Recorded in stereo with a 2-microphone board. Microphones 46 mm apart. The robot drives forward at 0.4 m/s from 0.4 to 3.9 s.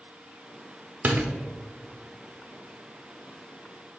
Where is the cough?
No cough in this recording.